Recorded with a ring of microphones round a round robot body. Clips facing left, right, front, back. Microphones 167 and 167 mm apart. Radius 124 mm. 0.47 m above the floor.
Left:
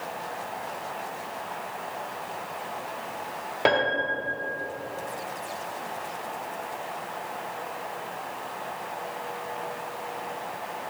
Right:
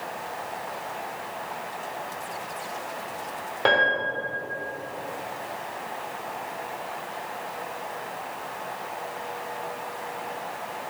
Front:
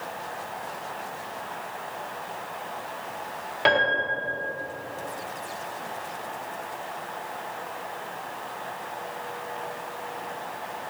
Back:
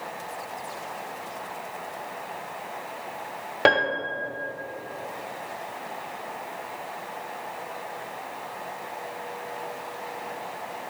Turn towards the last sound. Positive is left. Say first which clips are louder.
# even, back 2 dB
turn(degrees=160)